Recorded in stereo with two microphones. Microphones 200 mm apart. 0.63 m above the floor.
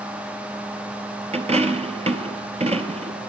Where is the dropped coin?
35° right (ahead or behind), 0.8 m.